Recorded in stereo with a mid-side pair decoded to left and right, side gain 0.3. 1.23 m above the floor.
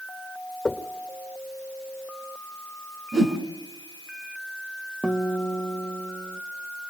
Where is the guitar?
25° right, 1.1 m.